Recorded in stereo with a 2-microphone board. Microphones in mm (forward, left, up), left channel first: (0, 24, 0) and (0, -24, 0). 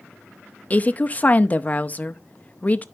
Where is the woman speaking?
30° left (ahead or behind), 0.6 m.